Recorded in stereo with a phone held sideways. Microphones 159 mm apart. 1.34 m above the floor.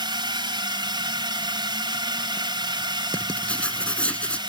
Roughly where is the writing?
Centre.